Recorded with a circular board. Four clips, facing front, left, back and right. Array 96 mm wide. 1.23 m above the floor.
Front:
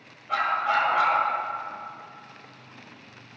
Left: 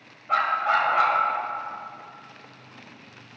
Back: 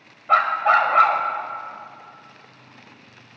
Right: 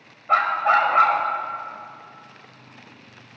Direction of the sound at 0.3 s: 155° right.